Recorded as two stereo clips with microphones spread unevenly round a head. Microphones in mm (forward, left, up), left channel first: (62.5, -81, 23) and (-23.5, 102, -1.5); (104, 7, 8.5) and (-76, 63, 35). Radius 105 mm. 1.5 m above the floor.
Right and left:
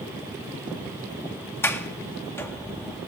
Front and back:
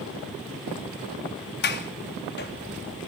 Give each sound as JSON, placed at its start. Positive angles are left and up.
{"t": 1.6, "sound": "a sliding door", "azimuth_deg": 15, "distance_m": 3.0}